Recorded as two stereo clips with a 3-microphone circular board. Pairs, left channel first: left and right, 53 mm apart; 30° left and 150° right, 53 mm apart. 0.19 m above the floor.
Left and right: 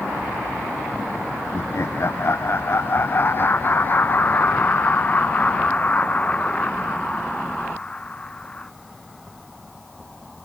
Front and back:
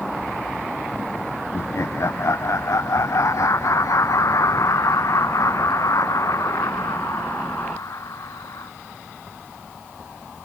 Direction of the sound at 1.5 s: 60° left.